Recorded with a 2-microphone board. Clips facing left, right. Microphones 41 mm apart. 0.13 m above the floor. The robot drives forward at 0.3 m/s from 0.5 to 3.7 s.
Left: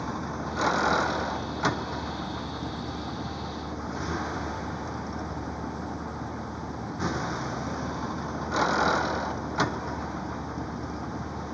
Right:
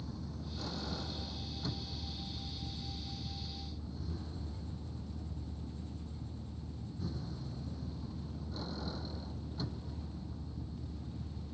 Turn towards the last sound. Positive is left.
turn(degrees=75)  # may be behind; listen again after turning